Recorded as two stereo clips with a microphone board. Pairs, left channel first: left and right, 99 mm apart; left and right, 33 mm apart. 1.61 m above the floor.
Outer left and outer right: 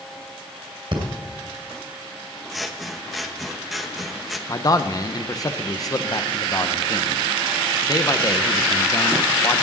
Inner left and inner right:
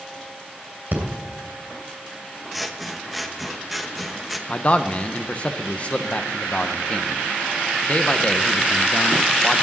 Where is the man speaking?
40° left (ahead or behind), 0.9 m.